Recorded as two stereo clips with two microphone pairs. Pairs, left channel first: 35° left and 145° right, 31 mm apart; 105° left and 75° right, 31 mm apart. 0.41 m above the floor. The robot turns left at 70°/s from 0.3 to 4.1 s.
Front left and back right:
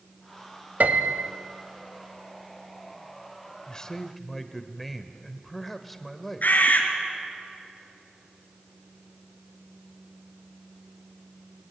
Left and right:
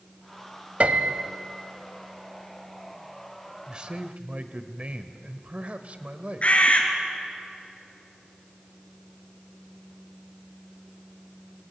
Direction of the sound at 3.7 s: 15° right.